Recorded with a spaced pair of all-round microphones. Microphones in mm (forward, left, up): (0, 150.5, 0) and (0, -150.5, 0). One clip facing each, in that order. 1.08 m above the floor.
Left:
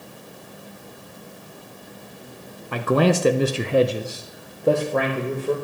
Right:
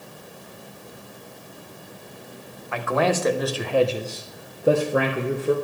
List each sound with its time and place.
2.7 s a man speaking: 40° left (ahead or behind), 0.8 m; by 5.5 s 15° right (ahead or behind), 1.2 m